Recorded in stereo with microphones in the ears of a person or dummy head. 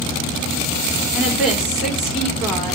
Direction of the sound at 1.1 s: 5° left (ahead or behind).